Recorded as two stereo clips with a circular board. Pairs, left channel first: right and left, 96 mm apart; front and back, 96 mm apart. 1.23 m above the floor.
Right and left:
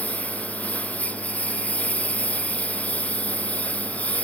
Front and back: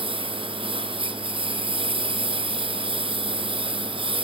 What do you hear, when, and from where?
0.0 s a lawn mower: 165° right